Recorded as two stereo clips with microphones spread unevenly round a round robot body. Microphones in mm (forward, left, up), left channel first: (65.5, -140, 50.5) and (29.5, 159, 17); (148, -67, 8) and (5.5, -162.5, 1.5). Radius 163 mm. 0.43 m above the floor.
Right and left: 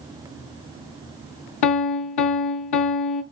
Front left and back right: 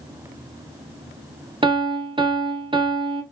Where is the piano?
90° right, 0.8 m.